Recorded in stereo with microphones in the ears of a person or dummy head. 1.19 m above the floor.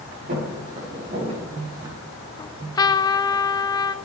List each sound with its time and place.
0.3 s footsteps: 40° right (ahead or behind), 6 m; by 2.0 s 25° right (ahead or behind), 6 m
2.4 s a trumpet: 15° left (ahead or behind), 0.5 m